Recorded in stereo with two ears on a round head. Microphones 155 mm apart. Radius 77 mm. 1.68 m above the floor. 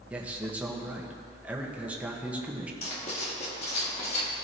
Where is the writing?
35° left (ahead or behind), 1.7 m.